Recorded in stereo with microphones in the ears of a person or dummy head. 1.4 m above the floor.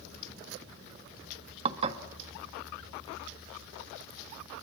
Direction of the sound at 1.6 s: 35° right (ahead or behind).